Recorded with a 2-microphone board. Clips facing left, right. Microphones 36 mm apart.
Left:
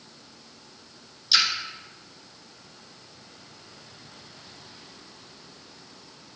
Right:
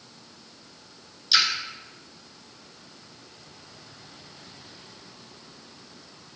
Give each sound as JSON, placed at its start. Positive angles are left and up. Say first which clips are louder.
{"t": 1.3, "sound": "a splash", "louder": "even", "side_deg": -5, "distance_m": 1.1}